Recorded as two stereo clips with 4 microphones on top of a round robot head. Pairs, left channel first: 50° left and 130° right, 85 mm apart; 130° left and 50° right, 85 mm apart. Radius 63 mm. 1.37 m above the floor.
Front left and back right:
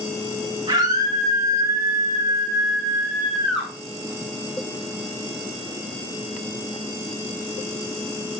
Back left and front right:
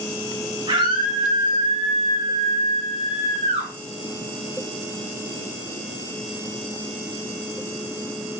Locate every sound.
0.7 s a scream: 90° right, 2 m; by 3.7 s 35° right, 3 m